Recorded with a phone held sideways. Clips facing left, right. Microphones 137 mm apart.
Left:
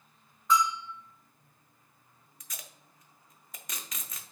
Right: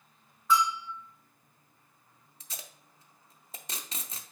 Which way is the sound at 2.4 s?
30° right (ahead or behind).